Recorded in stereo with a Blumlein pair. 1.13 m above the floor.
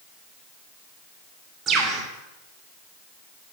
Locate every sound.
1.7 s a bird: 20° right, 3 m